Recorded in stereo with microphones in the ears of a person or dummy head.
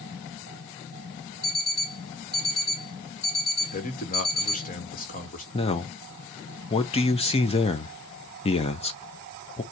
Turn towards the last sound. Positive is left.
turn(degrees=25)  # may be behind; listen again after turning